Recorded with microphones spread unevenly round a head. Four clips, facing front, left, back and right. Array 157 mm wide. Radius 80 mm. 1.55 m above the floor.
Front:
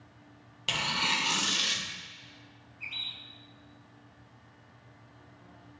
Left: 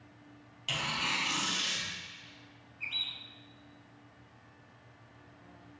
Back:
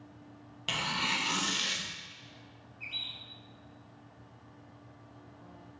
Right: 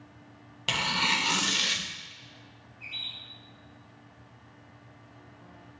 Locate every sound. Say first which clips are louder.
0.7 s tearing paper: right 6 dB, front 2 dB; 80° right, 1.2 m
2.8 s a bird: left 2 dB, front 2 dB; 65° left, 2.5 m